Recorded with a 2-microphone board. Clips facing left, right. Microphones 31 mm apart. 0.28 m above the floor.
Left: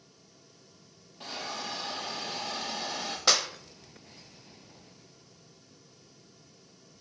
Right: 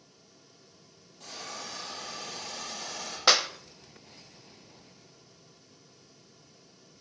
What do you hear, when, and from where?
1.2 s a hiss: 50° left (ahead or behind), 6 m
3.3 s a clap: 20° right (ahead or behind), 0.8 m